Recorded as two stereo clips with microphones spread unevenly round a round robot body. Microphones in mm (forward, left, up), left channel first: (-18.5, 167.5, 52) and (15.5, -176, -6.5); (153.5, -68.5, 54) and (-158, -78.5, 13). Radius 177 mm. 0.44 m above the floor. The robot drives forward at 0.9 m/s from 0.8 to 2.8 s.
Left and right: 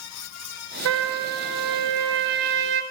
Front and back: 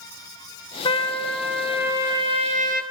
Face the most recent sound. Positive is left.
turn(degrees=-115)